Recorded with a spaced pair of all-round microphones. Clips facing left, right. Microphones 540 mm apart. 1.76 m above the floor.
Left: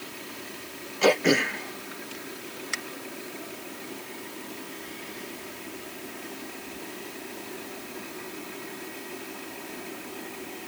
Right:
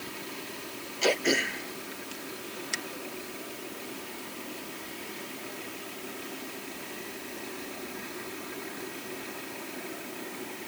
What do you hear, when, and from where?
1.0 s throat clearing: 75° left (ahead or behind)